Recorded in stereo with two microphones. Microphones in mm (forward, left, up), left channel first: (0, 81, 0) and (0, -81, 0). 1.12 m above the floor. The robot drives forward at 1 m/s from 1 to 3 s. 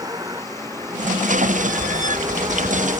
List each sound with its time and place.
0.0 s a vehicle: 20° right (ahead or behind)